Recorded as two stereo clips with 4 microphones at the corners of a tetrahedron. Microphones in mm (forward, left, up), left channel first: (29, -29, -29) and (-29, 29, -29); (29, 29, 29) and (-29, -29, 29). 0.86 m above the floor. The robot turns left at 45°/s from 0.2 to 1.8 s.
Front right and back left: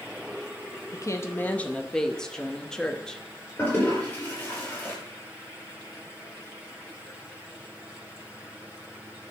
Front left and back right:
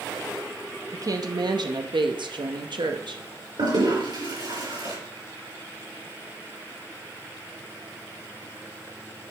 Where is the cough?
I don't hear a cough.